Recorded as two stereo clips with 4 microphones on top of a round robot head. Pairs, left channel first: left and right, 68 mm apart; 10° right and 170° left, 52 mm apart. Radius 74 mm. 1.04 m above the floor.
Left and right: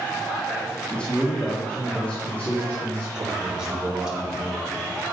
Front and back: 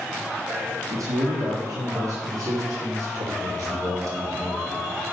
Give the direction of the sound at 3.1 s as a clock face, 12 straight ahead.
6 o'clock.